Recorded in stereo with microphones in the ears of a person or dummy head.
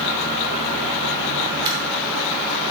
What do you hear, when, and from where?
1.6 s a dropped coin: 20° right (ahead or behind), 1.6 m